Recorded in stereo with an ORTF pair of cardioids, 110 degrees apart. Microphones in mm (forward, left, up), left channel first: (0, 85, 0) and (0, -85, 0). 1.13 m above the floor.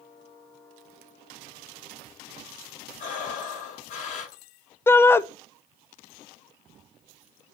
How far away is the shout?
About 0.6 m.